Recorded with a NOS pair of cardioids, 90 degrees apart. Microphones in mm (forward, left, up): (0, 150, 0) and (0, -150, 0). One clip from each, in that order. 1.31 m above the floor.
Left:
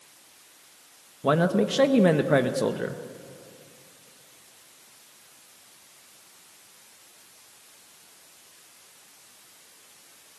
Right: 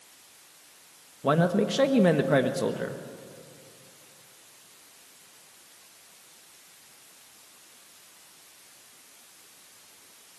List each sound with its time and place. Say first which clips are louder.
1.2 s a man speaking: left 1 dB; 10° left, 1.3 m